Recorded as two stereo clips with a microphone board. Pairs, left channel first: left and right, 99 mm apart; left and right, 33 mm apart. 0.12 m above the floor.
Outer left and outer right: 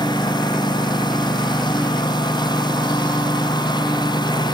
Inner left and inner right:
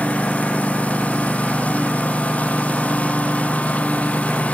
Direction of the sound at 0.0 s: 45° left (ahead or behind).